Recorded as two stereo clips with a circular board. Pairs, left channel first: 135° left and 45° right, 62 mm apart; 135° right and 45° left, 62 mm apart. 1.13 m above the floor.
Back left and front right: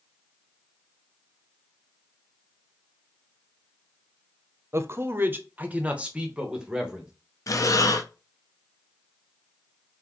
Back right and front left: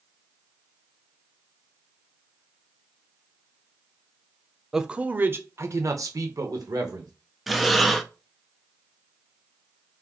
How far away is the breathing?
About 0.6 m.